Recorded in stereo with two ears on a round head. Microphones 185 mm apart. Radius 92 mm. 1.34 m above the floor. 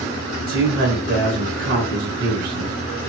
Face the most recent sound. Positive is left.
turn(degrees=-50)  # may be behind; listen again after turning